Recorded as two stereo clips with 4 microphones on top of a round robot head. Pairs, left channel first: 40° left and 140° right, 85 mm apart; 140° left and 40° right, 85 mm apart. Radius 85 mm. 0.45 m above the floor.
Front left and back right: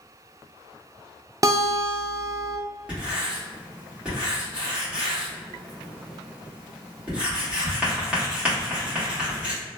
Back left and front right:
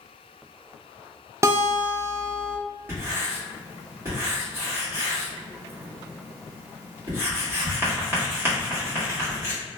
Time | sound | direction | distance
1.4 | a guitar | 95° right | 0.6 m
2.9 | writing | 75° right | 1.6 m